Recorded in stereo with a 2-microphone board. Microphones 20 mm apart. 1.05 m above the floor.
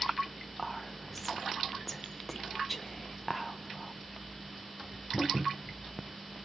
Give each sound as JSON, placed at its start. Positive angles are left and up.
{"t": 0.6, "sound": "whispering", "side_deg": 5, "distance_m": 0.6}